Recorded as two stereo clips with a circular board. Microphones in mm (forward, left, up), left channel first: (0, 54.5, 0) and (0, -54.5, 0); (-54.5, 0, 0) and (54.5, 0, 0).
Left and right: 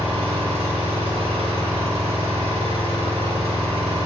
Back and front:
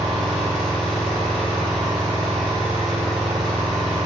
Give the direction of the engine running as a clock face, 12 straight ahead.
3 o'clock.